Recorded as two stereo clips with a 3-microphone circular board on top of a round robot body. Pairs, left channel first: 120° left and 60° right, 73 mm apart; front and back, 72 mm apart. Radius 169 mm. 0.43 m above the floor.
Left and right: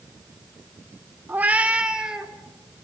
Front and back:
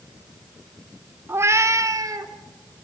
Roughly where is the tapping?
No tapping in this recording.